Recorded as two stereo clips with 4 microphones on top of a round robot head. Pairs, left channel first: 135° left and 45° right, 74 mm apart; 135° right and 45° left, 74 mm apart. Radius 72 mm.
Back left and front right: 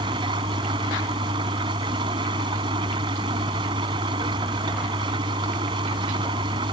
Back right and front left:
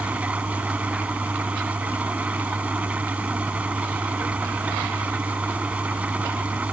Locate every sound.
0.0 s an engine running: 30° right